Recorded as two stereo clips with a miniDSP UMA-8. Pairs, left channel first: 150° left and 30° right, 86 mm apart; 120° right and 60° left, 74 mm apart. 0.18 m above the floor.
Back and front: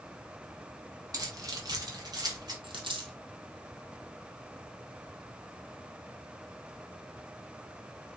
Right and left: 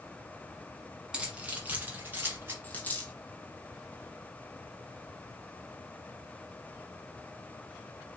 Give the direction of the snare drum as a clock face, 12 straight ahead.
No snare drum in this recording.